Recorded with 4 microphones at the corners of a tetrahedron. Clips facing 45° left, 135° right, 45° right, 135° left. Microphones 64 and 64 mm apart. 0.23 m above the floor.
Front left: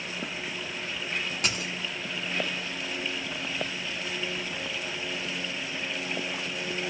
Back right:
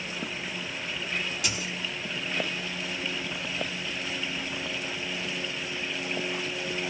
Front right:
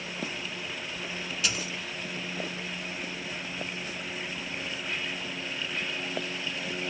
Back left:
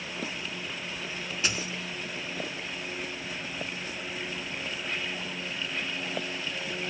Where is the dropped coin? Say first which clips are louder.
Front left 1 dB, back left 1 dB; 80° left, 0.9 m.